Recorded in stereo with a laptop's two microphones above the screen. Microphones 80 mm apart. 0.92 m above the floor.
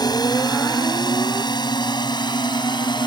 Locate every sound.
0.0 s a drone: 55° left (ahead or behind); by 3.1 s 65° left (ahead or behind)